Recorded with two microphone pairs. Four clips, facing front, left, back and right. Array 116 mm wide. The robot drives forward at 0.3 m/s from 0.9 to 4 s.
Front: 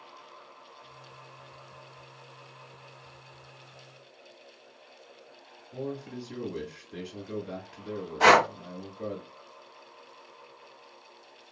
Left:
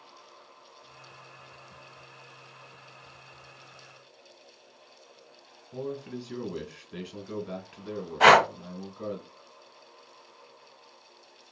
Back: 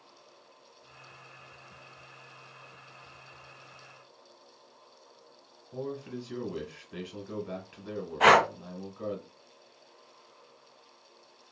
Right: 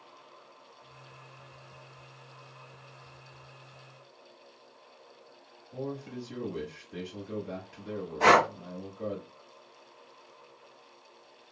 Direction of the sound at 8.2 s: 70° left.